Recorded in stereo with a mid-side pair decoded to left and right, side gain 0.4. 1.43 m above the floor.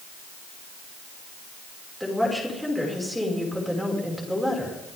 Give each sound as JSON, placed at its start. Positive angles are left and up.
{"t": 2.0, "sound": "a woman speaking", "azimuth_deg": 5, "distance_m": 5.5}